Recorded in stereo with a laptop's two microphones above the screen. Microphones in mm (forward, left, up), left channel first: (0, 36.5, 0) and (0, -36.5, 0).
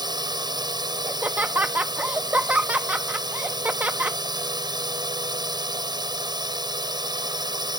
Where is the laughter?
20° right (ahead or behind).